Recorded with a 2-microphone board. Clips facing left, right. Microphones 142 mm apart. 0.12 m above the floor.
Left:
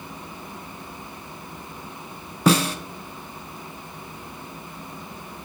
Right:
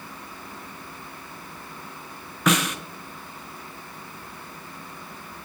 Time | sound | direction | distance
2.5 | a snare drum | 30° left (ahead or behind) | 0.6 m